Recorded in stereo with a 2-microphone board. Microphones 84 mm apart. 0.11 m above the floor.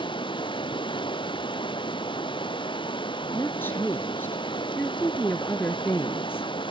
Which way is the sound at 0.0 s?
80° left.